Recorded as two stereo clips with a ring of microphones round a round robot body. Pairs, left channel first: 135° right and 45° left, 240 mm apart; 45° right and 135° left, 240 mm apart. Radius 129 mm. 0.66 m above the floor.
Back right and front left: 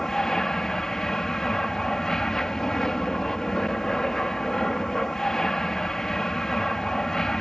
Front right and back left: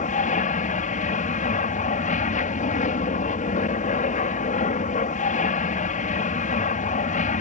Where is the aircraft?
50° right.